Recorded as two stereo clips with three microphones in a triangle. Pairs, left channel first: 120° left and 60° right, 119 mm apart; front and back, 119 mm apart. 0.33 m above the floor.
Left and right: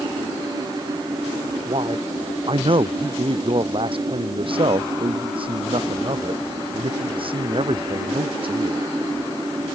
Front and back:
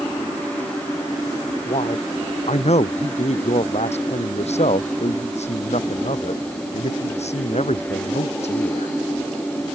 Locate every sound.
1.7 s a man speaking: 20° right